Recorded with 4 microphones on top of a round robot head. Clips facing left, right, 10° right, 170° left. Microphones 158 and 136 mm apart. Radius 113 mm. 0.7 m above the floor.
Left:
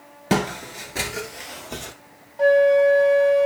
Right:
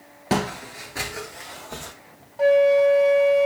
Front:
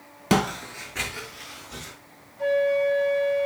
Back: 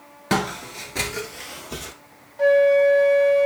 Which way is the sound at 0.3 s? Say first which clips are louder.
Left 2 dB, front 1 dB; 40° left.